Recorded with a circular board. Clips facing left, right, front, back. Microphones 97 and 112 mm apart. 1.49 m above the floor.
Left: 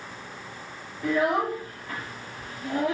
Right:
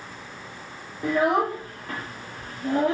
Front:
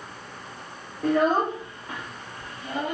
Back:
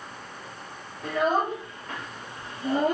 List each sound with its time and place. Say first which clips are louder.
1.0 s a child speaking: right 2 dB, front 3 dB; 35° right, 0.8 m; by 3.0 s 140° right, 0.7 m